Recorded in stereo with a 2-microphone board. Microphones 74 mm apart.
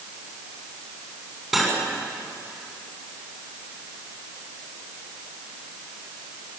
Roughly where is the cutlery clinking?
Centre.